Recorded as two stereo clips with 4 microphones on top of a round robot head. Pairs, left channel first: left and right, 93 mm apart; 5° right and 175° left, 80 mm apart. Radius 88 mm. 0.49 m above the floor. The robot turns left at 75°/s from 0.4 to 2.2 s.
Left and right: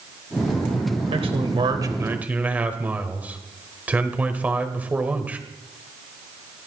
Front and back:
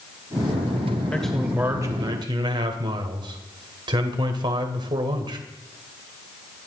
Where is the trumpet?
I don't hear a trumpet.